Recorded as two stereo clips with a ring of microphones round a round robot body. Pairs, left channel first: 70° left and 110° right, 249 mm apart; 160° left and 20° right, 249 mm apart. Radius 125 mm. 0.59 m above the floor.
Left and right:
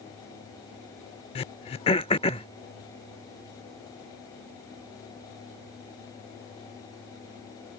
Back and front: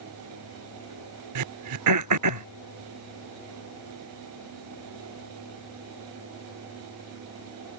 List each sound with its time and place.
1.4 s throat clearing: straight ahead